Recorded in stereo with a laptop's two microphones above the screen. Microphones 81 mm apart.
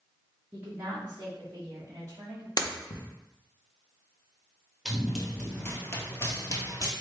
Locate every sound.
0.5 s a woman speaking: 25° right (ahead or behind), 0.7 m; by 2.5 s 35° right (ahead or behind), 1.7 m
2.6 s breaking glass: 55° left (ahead or behind), 0.6 m
4.8 s running footsteps: 5° right (ahead or behind), 1.1 m; by 6.9 s 45° left (ahead or behind), 1.3 m